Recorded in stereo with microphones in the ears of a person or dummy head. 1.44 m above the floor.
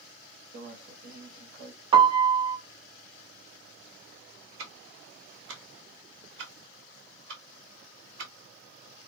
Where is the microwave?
85° right, 0.9 m.